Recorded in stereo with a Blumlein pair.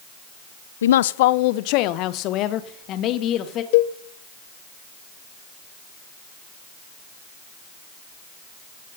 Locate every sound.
0.8 s a woman speaking: 65° left, 0.6 m; by 3.6 s 30° left, 2.5 m
3.7 s a cowbell: 50° left, 0.9 m